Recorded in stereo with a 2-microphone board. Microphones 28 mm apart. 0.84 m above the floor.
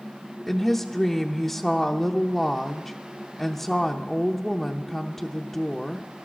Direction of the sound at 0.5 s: 10° left (ahead or behind).